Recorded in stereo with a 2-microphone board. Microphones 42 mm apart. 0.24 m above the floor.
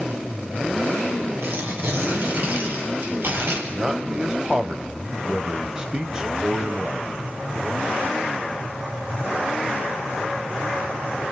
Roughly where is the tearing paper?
Right.